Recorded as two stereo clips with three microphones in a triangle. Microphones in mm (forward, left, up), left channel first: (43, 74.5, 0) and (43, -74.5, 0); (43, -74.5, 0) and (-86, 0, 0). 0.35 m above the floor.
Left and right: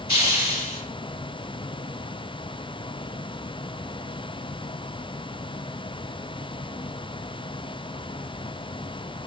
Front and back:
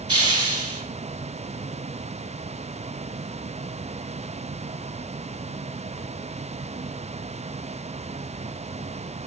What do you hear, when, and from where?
0.1 s a hiss: 155° right, 0.9 m